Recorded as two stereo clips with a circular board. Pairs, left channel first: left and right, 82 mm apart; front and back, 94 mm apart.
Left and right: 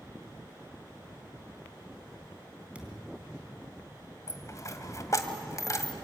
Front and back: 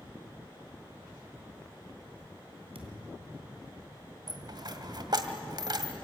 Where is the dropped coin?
140° left, 1.7 m.